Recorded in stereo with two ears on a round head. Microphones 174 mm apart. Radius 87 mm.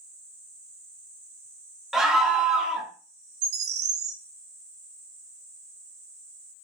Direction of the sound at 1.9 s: 5° right (ahead or behind).